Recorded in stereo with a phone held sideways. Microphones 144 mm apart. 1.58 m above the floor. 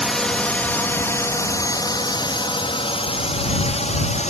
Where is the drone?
Centre (ahead or behind); by 4.3 s 50° left (ahead or behind).